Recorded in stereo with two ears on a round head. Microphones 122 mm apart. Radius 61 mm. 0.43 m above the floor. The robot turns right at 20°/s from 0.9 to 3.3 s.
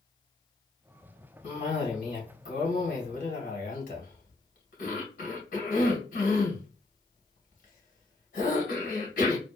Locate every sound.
1.4 s a cough: 50° left (ahead or behind), 3 m; by 9.5 s 70° left (ahead or behind), 3 m